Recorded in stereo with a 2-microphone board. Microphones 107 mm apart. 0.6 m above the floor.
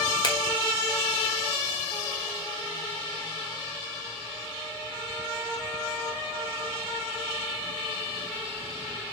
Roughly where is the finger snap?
Left.